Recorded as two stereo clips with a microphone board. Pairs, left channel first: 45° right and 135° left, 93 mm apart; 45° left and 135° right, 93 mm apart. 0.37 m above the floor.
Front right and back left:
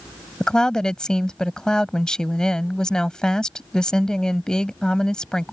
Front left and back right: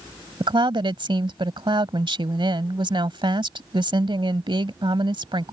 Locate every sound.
0.4 s a woman speaking: 125° right